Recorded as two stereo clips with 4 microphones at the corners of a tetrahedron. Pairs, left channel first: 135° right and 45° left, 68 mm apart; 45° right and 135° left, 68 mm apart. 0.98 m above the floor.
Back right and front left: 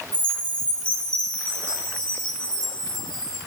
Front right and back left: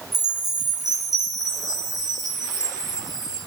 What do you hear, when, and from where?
0.1 s a chime: 150° left, 8 m